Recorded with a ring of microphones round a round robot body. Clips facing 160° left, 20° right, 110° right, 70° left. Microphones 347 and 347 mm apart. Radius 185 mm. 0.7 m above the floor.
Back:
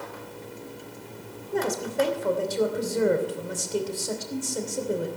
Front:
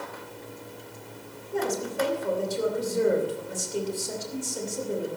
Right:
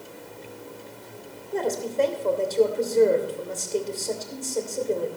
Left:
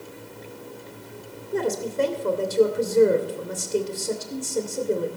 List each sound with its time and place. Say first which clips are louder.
1.5 s a woman speaking: back 2 dB, left 1 dB; 140° left, 2.5 m